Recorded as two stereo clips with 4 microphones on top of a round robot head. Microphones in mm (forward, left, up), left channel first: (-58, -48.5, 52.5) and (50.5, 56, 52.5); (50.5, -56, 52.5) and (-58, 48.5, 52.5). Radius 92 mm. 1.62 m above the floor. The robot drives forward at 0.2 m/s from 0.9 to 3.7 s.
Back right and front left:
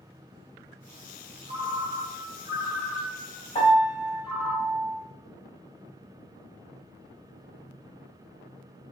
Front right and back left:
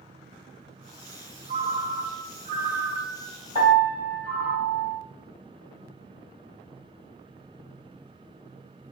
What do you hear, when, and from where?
1.5 s a ringtone: 95° left, 0.9 m; by 4.5 s 125° left, 1.0 m
3.5 s a piano: straight behind, 1.3 m